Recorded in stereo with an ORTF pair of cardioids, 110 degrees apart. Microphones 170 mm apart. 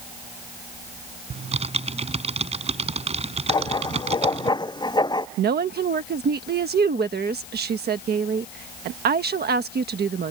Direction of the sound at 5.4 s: 70° right.